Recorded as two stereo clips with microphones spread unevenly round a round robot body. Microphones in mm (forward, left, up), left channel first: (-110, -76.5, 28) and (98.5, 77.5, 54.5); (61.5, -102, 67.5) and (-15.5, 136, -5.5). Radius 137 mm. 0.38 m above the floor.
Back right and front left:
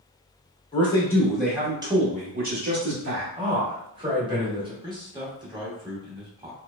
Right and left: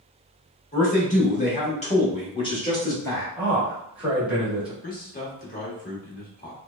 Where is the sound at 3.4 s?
90° left, 1.4 m.